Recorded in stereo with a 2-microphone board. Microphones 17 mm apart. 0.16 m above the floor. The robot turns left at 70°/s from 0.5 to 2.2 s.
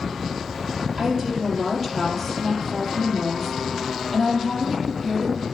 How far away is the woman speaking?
About 5 m.